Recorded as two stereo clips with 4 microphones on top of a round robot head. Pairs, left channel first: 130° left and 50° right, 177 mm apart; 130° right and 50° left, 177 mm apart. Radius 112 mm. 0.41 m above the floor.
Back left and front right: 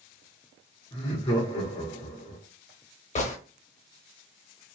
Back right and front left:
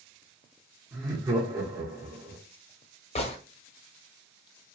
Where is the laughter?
105° left, 0.8 m.